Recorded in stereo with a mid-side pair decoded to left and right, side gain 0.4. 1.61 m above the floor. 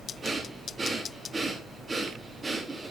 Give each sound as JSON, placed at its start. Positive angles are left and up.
{"t": 0.2, "sound": "breathing", "azimuth_deg": -35, "distance_m": 3.0}